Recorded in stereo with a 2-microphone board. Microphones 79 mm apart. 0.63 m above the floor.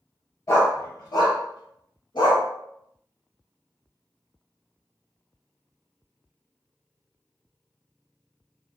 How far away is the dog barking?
About 1.4 m.